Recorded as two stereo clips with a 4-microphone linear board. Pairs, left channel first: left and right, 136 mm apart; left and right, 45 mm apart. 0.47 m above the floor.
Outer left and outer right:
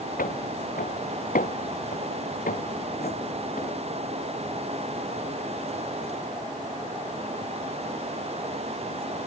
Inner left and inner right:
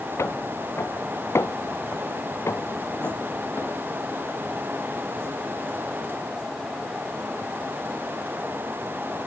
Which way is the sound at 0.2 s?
90° left.